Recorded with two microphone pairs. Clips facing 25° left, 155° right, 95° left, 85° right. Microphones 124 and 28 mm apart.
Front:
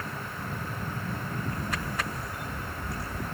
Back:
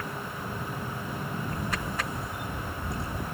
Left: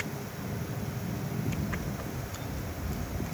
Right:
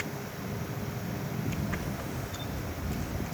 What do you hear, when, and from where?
1.5 s a camera shutter: 90° right, 0.6 m